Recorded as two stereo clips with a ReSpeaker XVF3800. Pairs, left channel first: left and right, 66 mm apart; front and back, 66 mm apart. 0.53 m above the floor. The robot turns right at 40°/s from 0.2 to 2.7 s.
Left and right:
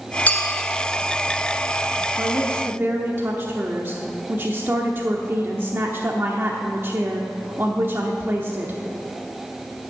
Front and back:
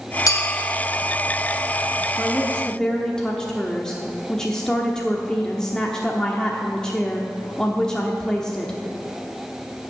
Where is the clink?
25° left, 1.4 m; by 0.6 s 40° left, 1.4 m.